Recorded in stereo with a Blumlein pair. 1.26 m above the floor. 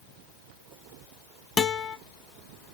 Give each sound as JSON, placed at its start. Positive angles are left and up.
{"t": 1.6, "sound": "a guitar", "azimuth_deg": 20, "distance_m": 0.6}